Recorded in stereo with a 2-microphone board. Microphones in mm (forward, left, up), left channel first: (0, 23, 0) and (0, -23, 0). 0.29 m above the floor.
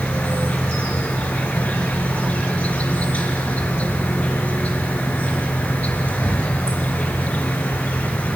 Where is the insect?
35° left (ahead or behind), 3 m.